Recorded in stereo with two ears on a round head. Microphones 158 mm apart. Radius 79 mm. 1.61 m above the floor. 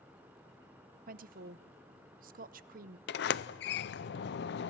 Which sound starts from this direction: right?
A woman speaking, at 1.1 s.